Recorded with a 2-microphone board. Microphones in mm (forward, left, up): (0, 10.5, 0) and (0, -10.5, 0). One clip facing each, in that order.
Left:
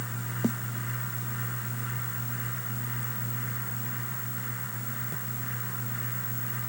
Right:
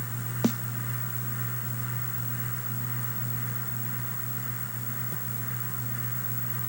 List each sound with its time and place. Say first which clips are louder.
0.4 s a snare drum: right 3 dB; 55° right (ahead or behind)